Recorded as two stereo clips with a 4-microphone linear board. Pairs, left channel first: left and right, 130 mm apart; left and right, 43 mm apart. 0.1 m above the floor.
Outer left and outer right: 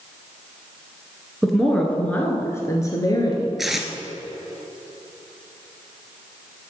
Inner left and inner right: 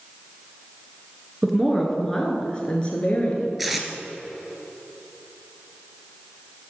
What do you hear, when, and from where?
1.4 s a woman speaking: centre (ahead or behind), 1.5 m; by 3.5 s 35° left (ahead or behind), 1.8 m
3.6 s tape being pulled: centre (ahead or behind), 1.1 m